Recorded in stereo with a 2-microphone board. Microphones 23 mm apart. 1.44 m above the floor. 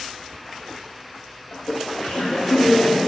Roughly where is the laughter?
Left.